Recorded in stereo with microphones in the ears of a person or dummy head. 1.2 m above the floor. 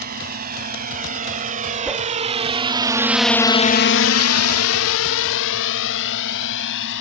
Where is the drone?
50° right (ahead or behind); by 7.0 s 65° left (ahead or behind).